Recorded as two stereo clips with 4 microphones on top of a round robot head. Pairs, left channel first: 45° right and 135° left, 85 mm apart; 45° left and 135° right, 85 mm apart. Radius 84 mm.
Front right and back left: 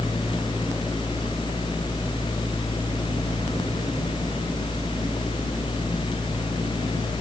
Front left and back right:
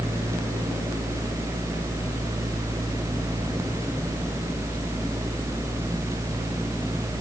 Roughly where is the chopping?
I don't hear chopping.